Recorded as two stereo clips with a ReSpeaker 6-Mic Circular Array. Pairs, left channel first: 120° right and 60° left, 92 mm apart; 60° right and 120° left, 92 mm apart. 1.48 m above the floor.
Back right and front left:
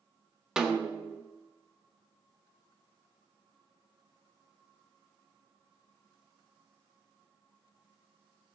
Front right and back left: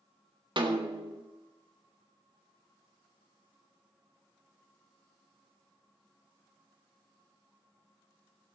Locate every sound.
0.6 s a snare drum: 145° left, 1.7 m